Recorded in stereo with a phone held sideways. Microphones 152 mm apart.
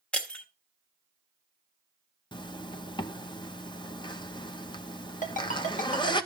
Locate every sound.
0.1 s breaking glass: 10° left (ahead or behind), 1.2 m
2.3 s a zipper: 30° left (ahead or behind), 0.8 m
5.2 s a ringtone: 55° left (ahead or behind), 2 m